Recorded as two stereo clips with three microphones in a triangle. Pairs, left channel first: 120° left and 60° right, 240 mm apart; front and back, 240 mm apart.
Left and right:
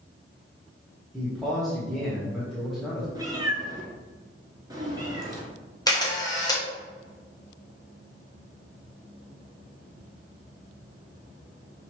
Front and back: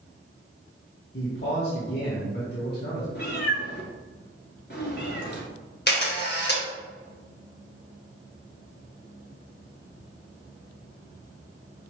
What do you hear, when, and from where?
1.1 s a man speaking: 30° left, 1.1 m
3.1 s a cat meowing: 10° left, 1.3 m
5.9 s a camera shutter: 45° left, 1.2 m